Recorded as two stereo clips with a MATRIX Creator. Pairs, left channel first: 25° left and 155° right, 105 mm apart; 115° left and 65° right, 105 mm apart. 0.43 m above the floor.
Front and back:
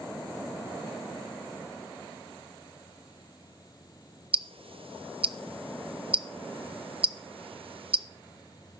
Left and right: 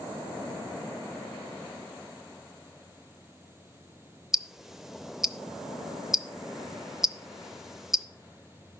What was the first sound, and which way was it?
Ticking, 155° right.